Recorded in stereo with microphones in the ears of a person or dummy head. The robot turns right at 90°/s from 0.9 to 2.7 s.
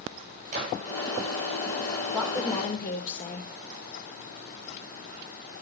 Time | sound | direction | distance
0.5 | a gunshot | 50° right (ahead or behind) | 8 m
2.1 | a woman speaking | 5° left | 4 m